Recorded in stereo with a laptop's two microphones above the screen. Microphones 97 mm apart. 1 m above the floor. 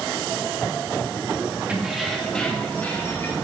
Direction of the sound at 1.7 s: 15° right (ahead or behind).